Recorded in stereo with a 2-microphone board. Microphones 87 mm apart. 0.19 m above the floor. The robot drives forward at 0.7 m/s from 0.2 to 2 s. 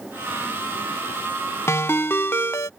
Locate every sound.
1.7 s a ringtone: 30° left (ahead or behind)